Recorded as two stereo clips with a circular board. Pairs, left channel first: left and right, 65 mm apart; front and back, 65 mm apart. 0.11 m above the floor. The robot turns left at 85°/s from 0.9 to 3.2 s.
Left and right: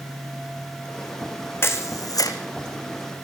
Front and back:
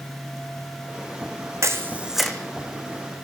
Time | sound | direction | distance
1.6 | a camera shutter | 140° left | 2 m